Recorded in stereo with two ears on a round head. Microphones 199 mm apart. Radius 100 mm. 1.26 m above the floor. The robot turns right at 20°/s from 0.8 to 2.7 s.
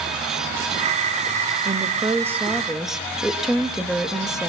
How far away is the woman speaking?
About 1.9 m.